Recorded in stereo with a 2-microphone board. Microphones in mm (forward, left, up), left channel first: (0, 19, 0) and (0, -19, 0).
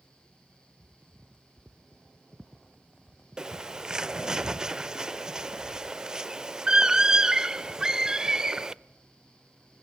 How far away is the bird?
About 0.5 m.